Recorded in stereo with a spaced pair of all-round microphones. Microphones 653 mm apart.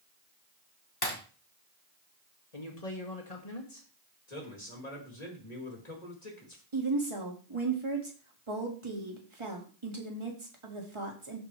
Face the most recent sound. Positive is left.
turn(degrees=-45)  # may be behind; listen again after turning